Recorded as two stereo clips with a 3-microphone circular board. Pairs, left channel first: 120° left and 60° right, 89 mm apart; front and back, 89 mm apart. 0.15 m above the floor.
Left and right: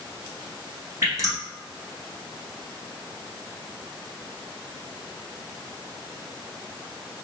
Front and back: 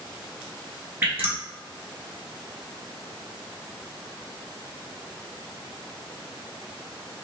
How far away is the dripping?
About 1.7 m.